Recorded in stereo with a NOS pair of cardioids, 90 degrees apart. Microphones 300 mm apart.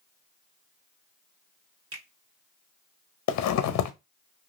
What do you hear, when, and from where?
1.9 s a finger snap: 45° right, 1.3 m
3.3 s a zipper: 65° left, 0.6 m